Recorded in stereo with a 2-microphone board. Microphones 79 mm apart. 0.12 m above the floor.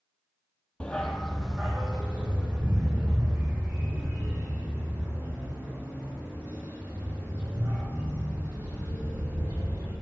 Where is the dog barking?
15° left (ahead or behind), 0.8 m; by 9.9 s 25° right (ahead or behind), 8 m.